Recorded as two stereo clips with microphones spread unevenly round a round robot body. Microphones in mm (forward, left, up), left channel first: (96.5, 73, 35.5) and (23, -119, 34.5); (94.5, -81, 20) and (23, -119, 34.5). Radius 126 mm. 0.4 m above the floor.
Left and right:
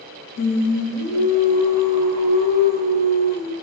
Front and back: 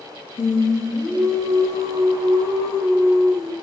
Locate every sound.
0.4 s singing: 65° left, 0.7 m